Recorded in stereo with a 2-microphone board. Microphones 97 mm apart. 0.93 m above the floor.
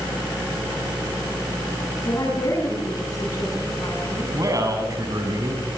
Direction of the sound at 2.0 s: 40° left (ahead or behind).